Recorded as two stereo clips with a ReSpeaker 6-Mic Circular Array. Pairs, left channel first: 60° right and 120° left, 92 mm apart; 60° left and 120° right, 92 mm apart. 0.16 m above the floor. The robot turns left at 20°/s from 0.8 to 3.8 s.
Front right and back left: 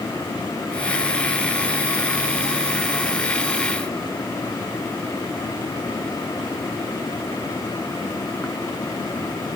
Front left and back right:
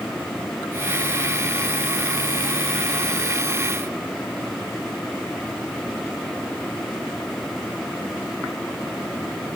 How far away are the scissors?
No scissors in this recording.